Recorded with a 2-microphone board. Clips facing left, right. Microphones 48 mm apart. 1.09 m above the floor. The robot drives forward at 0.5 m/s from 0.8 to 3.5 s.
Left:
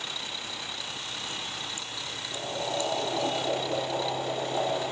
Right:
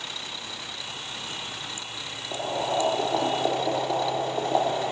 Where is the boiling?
60° right (ahead or behind), 3 m; by 4.9 s 50° right (ahead or behind), 3 m.